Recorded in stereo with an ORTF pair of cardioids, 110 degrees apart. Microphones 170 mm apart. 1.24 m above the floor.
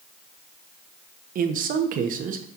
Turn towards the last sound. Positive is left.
turn(degrees=-55)